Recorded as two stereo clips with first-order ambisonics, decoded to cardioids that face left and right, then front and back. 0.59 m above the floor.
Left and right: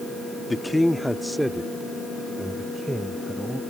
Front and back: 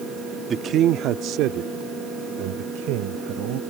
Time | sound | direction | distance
0.5 | a man speaking | 165° left | ?